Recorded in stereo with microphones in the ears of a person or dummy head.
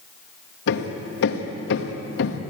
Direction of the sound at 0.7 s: 65° left (ahead or behind).